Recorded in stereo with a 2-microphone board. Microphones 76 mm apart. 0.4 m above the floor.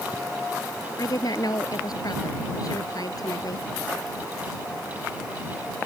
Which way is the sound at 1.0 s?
55° left (ahead or behind).